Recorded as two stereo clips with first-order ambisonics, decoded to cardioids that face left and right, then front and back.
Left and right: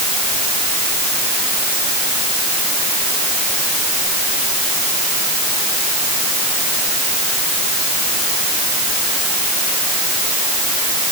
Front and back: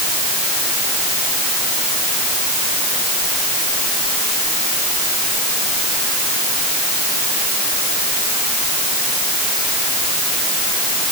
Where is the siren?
No siren in this recording.